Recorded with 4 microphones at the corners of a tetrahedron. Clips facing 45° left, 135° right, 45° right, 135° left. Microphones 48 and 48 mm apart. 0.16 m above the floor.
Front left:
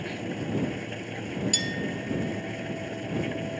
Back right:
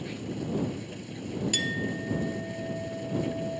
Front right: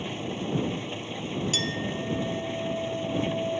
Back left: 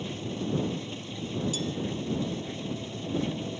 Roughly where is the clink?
Ahead right.